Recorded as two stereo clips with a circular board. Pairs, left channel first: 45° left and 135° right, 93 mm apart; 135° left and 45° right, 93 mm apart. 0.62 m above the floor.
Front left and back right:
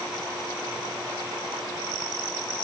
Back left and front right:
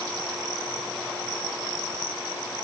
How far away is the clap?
No clap in this recording.